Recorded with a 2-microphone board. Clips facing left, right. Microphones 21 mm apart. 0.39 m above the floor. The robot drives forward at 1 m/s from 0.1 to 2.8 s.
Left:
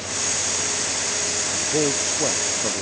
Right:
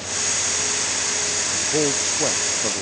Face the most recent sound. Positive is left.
turn(degrees=-5)  # may be behind; listen again after turning